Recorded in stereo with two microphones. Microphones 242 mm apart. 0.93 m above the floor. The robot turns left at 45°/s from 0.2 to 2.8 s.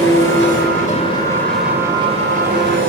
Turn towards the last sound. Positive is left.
turn(degrees=-55)